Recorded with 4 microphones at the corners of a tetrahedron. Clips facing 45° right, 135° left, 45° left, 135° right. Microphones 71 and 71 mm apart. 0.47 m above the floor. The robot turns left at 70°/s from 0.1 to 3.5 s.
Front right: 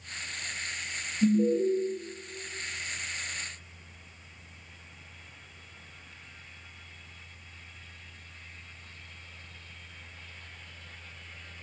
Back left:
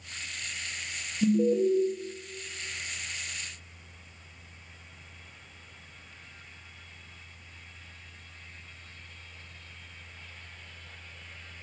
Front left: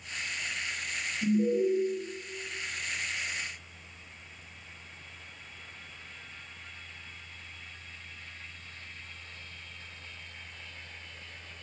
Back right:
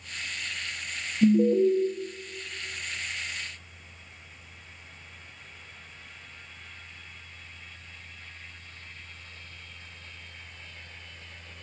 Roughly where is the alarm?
Behind right.